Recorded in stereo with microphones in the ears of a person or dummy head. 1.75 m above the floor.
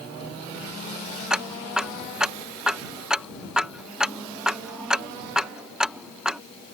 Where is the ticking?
Centre (ahead or behind).